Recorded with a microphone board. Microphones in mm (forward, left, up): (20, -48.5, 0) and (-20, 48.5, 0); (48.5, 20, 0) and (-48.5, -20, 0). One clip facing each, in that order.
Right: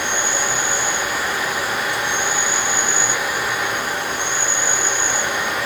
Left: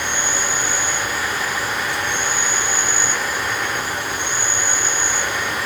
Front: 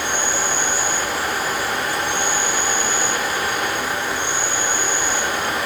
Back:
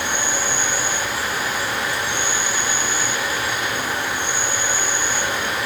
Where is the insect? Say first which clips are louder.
Right 2 dB, front 1 dB; 40° right, 1.9 m.